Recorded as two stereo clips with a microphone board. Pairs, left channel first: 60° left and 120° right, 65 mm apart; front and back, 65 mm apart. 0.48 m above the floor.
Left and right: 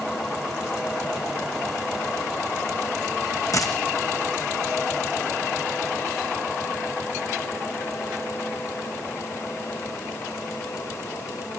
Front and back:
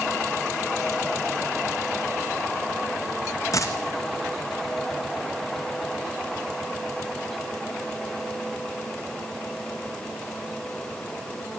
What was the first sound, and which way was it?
A dropped coin, 35° left.